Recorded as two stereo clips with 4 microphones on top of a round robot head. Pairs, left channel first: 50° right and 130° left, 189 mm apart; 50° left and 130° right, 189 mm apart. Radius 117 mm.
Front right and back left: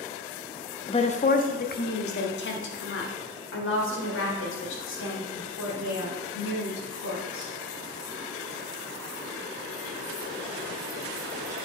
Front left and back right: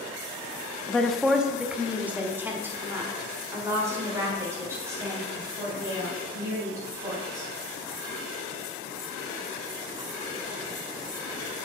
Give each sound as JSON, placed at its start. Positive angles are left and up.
{"t": 0.9, "sound": "a woman speaking", "azimuth_deg": -30, "distance_m": 0.6}